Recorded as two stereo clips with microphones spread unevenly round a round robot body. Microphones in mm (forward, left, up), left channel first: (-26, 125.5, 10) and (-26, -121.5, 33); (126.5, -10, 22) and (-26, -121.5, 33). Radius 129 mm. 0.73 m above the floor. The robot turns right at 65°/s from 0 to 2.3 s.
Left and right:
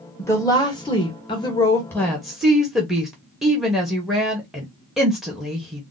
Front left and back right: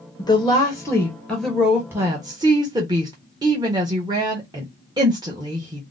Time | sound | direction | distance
0.2 | a woman speaking | 35° left | 1.0 m